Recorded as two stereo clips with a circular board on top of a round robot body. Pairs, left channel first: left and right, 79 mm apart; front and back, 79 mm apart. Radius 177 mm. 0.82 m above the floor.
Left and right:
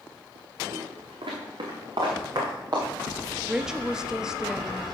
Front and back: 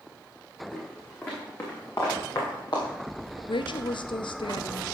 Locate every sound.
0.7 s footsteps: 80° right, 4.5 m; by 2.9 s 45° right, 5 m
3.5 s a woman speaking: 10° right, 1.1 m